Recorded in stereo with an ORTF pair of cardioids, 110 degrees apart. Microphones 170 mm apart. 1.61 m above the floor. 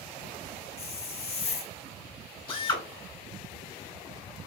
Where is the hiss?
40° left, 0.6 m.